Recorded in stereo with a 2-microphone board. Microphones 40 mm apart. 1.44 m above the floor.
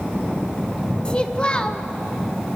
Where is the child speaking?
25° left (ahead or behind), 1.3 m.